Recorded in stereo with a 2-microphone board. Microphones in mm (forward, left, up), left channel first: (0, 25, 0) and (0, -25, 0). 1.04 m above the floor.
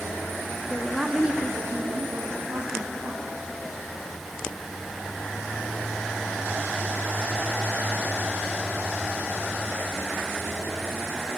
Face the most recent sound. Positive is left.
turn(degrees=-75)  # may be behind; listen again after turning